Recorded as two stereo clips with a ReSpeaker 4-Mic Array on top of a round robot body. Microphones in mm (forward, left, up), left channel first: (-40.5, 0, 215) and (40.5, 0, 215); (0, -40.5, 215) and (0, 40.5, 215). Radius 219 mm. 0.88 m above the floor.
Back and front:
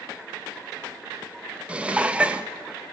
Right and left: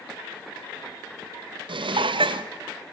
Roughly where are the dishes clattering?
Left.